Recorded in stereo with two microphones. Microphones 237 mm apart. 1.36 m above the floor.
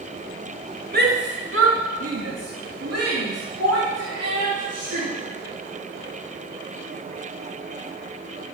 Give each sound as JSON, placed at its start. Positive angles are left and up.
{"t": 0.9, "sound": "a shout", "side_deg": -40, "distance_m": 1.9}